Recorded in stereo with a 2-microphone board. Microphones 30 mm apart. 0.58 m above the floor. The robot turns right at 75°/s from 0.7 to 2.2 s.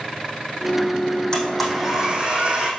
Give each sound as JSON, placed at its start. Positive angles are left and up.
{"t": 1.3, "sound": "a blender", "azimuth_deg": 155, "distance_m": 4.5}